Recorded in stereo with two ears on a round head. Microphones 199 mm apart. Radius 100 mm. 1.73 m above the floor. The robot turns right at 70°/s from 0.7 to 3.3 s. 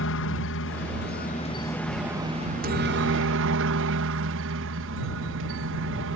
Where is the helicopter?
95° left; by 6.2 s 85° right.